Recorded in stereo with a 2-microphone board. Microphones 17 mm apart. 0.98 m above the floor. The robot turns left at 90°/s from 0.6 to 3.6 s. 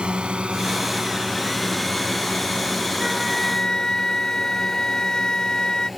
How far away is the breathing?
I don't hear breathing.